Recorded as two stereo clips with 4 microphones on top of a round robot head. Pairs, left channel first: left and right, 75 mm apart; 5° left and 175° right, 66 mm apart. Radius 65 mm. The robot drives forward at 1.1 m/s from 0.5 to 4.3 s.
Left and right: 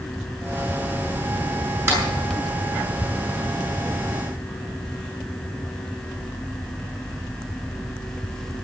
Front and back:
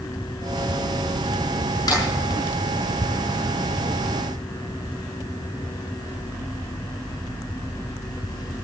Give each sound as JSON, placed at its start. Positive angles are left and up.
{"t": 1.9, "sound": "a clap", "azimuth_deg": -35, "distance_m": 6.5}